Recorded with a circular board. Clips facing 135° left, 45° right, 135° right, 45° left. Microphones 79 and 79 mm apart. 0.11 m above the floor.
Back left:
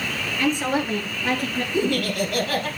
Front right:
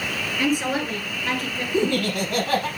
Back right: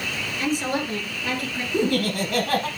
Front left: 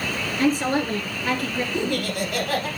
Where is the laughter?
95° right, 4.5 m.